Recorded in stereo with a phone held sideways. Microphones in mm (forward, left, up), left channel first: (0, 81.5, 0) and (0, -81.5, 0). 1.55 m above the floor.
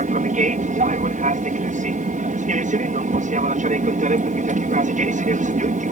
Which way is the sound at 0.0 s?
50° right (ahead or behind).